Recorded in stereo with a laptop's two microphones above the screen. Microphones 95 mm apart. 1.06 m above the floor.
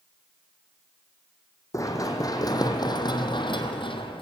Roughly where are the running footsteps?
Left.